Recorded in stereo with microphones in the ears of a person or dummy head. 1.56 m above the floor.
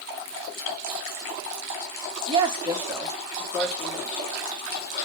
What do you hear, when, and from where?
2.3 s a woman speaking: 30° right (ahead or behind), 0.9 m; by 4.2 s 10° left (ahead or behind), 1.6 m